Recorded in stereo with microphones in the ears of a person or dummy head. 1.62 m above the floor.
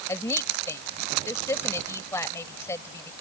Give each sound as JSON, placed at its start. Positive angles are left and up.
{"t": 0.1, "sound": "a woman speaking", "side_deg": 15}